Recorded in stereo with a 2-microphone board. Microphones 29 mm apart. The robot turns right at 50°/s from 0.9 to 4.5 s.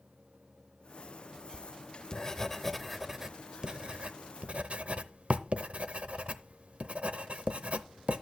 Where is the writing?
50° left (ahead or behind), 0.7 m; by 8.2 s 55° right (ahead or behind), 0.7 m.